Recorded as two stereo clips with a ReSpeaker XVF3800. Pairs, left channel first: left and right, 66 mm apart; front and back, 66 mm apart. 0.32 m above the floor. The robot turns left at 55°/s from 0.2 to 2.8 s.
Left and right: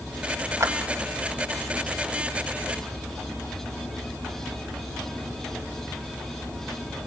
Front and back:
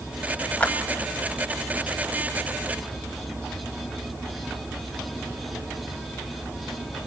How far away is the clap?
About 1.4 m.